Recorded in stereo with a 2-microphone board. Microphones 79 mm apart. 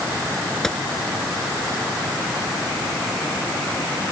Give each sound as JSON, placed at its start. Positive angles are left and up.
{"t": 0.6, "sound": "a gunshot", "side_deg": 10}